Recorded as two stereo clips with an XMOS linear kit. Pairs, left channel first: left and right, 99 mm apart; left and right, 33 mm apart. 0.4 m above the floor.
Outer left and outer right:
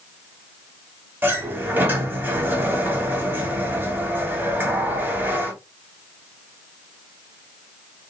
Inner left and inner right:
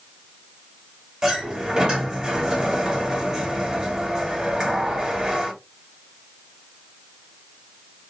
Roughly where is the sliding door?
Right.